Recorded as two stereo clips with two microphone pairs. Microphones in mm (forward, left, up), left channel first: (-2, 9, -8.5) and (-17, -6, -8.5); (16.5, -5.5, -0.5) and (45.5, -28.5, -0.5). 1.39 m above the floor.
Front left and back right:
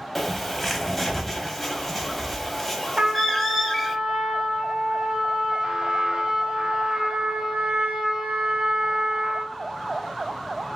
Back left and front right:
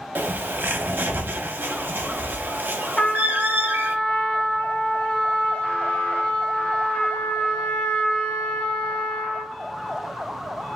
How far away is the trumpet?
About 0.6 m.